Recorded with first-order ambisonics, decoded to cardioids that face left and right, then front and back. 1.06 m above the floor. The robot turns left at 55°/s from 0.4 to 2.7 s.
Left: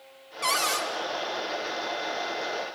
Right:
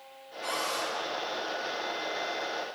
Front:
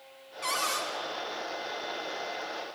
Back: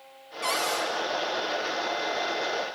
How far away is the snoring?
I don't hear snoring.